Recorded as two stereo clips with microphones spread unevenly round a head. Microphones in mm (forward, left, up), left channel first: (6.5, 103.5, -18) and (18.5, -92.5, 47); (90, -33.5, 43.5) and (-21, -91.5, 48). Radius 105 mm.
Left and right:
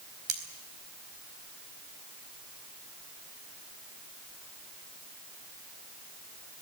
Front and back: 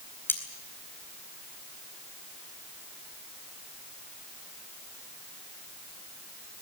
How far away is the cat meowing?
I don't hear a cat meowing.